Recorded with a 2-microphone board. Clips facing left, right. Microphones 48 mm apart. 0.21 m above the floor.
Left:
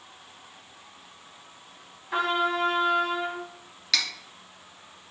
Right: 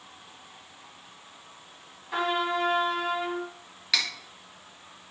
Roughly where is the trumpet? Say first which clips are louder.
Left 2 dB; centre.